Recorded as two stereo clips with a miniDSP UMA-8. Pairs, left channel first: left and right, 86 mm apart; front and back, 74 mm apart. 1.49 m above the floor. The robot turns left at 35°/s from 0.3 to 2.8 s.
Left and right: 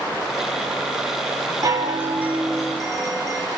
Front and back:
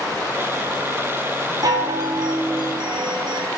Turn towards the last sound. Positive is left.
turn(degrees=175)